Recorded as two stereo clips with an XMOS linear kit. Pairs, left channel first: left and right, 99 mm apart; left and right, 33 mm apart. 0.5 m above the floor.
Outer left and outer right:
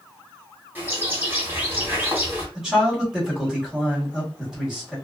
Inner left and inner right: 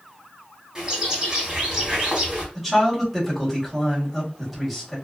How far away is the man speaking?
About 1.5 m.